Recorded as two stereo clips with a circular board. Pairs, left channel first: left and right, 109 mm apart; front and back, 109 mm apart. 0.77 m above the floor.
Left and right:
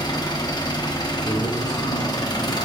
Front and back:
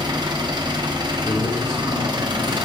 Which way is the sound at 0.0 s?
135° left.